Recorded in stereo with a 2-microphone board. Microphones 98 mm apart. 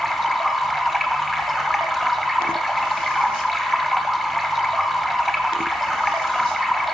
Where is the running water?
Centre (ahead or behind), 1.0 m.